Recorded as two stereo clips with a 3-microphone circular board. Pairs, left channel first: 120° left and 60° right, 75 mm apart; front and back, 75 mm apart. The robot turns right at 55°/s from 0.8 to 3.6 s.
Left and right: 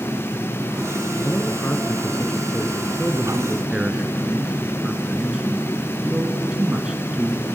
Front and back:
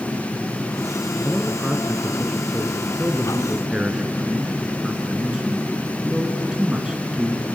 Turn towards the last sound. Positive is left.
turn(degrees=-115)